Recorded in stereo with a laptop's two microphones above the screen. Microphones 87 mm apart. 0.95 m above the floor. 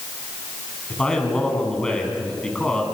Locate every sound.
0.9 s a man speaking: 10° left (ahead or behind), 7.5 m